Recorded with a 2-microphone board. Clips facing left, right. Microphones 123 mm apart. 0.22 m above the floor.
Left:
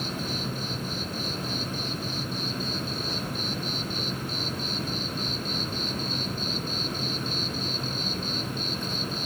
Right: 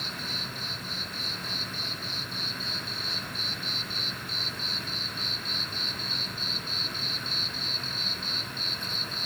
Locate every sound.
0.0 s an insect: 40° left (ahead or behind)